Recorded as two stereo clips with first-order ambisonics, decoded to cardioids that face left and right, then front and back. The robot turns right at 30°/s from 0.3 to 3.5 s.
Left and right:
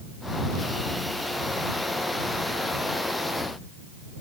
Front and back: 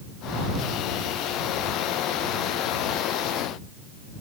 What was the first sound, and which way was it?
Only background noise.